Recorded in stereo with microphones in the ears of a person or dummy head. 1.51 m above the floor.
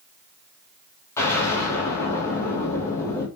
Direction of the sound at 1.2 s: 15° left (ahead or behind).